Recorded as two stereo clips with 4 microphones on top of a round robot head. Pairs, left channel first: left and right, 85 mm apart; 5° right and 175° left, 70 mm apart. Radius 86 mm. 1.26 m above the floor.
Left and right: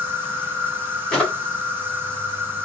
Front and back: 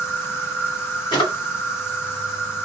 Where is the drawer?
5° left, 1.8 m.